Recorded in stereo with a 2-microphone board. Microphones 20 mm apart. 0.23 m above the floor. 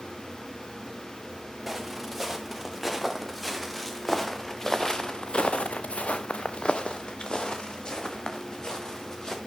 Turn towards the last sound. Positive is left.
turn(degrees=30)  # may be behind; listen again after turning